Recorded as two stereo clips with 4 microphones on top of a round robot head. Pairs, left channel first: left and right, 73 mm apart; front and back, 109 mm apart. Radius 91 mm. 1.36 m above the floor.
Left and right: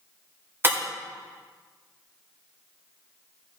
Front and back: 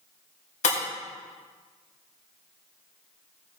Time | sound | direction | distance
0.6 | breaking glass | 35° right | 4 m